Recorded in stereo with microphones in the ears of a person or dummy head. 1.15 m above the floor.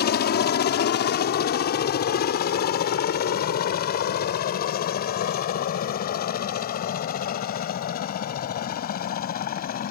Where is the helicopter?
45° left (ahead or behind); by 9.9 s 40° left (ahead or behind).